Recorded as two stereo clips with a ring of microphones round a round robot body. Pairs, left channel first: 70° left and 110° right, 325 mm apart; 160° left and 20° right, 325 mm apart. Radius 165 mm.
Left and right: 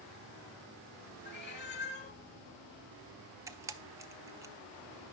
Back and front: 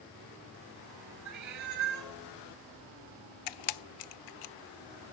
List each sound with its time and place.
1.2 s a cat meowing: 10° left, 1.2 m
3.5 s a camera shutter: 165° left, 0.5 m